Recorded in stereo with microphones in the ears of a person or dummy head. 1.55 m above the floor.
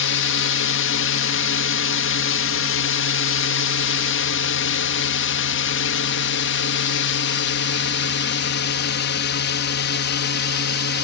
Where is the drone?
65° left (ahead or behind); by 11.1 s 60° left (ahead or behind).